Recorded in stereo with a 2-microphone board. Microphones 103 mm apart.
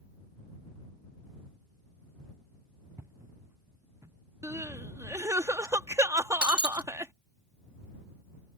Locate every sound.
3.0 s footsteps: 25° right (ahead or behind); by 4.2 s 30° right (ahead or behind)
4.4 s crying: 30° right (ahead or behind)
6.4 s breaking glass: 10° right (ahead or behind)